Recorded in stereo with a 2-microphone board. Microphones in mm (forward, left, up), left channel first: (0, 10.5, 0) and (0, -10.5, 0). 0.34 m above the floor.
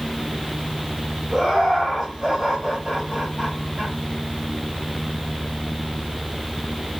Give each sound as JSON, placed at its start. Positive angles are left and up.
{"t": 1.3, "sound": "laughter", "side_deg": -20, "distance_m": 1.6}